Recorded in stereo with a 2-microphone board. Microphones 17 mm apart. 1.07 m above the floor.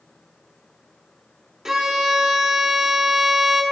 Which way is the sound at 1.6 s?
30° right (ahead or behind).